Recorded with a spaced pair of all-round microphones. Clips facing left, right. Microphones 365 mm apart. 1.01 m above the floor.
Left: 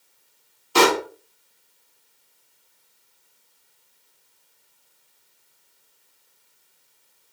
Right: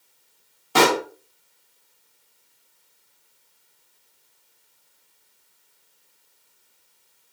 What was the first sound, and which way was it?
A pop, 65° right (ahead or behind).